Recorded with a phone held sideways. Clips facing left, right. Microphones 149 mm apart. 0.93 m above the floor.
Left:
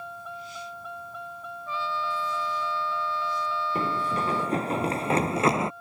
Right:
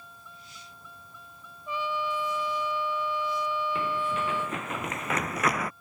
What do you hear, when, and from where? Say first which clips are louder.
0.0 s a vehicle: left 13 dB; 75° left (ahead or behind)
1.7 s a trumpet: even; 15° right (ahead or behind)
3.8 s running footsteps: left 2 dB; 45° left (ahead or behind); by 5.7 s 25° left (ahead or behind)